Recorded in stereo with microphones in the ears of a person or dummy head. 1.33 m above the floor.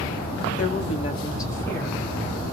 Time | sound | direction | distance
0.6 | a woman speaking | 50° left (ahead or behind) | 0.9 m